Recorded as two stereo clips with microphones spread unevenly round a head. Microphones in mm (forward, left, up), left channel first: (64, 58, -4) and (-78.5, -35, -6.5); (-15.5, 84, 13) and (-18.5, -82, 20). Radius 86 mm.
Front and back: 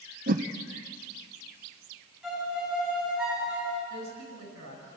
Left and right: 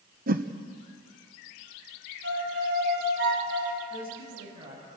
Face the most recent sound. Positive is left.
turn(degrees=-145)